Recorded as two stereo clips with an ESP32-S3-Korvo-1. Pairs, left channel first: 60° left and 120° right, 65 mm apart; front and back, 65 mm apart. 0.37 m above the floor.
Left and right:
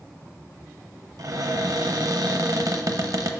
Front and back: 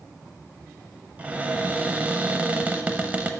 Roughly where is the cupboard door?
Behind right.